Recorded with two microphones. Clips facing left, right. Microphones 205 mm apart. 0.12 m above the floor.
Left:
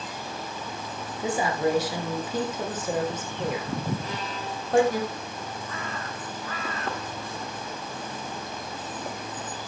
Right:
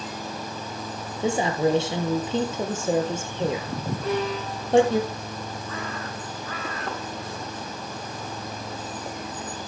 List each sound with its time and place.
1.2 s a woman speaking: 25° right (ahead or behind), 2.5 m
4.0 s a violin: 65° right (ahead or behind), 5.5 m